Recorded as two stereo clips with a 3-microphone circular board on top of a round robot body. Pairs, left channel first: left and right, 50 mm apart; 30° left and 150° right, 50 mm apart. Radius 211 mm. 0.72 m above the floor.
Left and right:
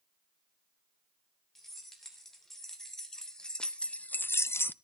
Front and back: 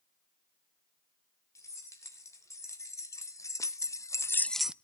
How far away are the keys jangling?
About 3.5 m.